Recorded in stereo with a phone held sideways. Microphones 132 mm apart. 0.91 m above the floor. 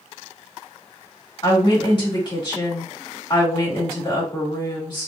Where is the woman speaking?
35° left (ahead or behind), 1.9 m.